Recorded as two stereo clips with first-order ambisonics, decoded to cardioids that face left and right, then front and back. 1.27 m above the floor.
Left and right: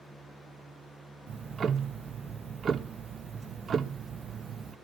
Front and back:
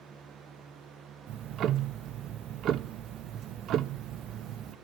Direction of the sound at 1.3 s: 145° right.